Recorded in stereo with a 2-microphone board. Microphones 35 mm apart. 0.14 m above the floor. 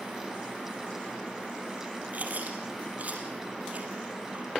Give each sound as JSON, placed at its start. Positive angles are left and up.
{"t": 2.1, "sound": "chewing", "side_deg": -45, "distance_m": 3.5}